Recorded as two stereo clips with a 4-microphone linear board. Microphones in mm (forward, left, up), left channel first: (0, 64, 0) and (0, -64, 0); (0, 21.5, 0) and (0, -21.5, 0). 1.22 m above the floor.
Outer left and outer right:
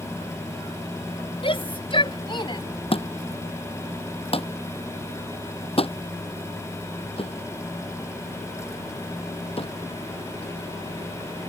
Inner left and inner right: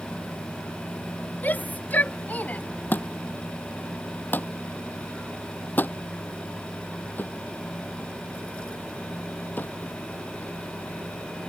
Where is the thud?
45° left (ahead or behind).